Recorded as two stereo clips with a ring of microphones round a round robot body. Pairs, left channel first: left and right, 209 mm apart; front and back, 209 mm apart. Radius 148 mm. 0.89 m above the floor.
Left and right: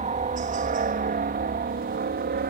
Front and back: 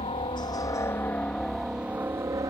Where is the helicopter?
55° right; by 2.5 s 110° right.